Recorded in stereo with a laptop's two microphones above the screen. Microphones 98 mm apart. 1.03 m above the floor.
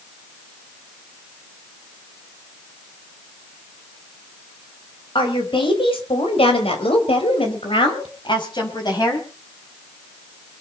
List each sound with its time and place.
5.2 s a woman speaking: 55° left (ahead or behind), 4.5 m; by 9.3 s 45° left (ahead or behind), 6 m